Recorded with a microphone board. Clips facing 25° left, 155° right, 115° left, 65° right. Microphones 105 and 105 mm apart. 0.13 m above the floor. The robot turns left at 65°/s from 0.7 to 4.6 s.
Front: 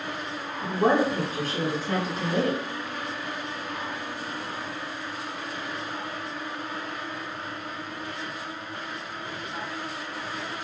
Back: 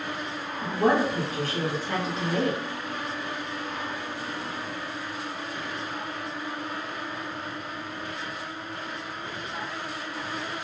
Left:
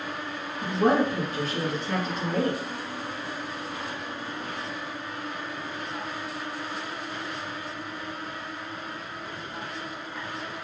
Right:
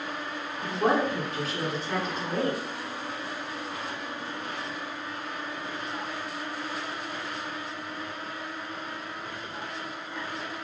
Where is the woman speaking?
70° left, 1.4 m; by 2.6 s 55° right, 1.4 m.